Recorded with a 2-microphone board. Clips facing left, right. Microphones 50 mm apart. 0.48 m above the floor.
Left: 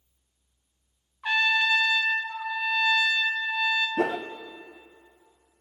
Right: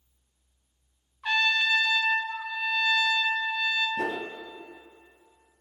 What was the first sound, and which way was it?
A trumpet, 15° left (ahead or behind).